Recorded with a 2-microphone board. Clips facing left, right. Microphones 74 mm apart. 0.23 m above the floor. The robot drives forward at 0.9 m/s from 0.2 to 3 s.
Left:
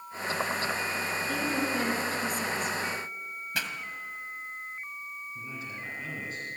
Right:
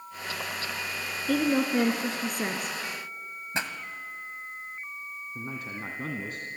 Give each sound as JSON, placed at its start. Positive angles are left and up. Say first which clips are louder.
{"t": 1.3, "sound": "a woman speaking", "louder": "right 8 dB", "side_deg": -65, "distance_m": 2.5}
{"t": 3.5, "sound": "a pop", "louder": "right 3 dB", "side_deg": -30, "distance_m": 1.6}
{"t": 5.3, "sound": "a man speaking", "louder": "right 5 dB", "side_deg": -55, "distance_m": 2.0}